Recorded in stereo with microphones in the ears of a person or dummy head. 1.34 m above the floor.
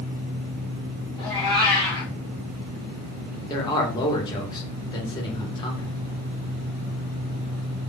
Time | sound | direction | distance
1.2 | a cat meowing | 25° left (ahead or behind) | 1.0 m
3.5 | a man speaking | 25° left (ahead or behind) | 1.5 m